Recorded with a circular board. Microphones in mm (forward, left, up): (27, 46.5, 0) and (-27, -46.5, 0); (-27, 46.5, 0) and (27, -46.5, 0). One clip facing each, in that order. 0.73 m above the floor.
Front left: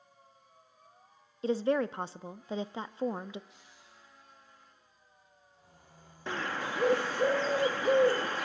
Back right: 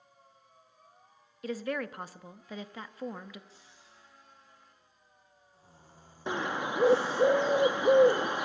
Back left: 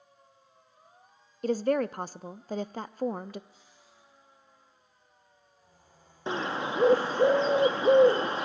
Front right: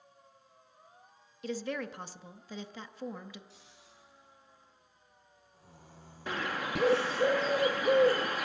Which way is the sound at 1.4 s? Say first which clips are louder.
Front left 6 dB, back left 10 dB; 110° left.